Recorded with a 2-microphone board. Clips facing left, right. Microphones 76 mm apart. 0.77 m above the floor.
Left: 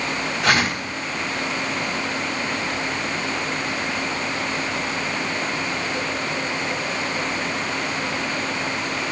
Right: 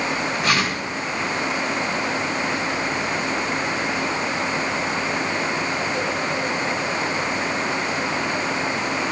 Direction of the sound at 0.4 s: 85° left.